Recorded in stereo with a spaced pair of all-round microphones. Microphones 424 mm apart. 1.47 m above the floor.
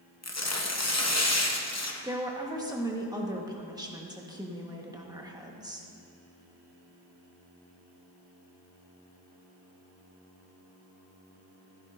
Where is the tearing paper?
40° left (ahead or behind), 0.8 m.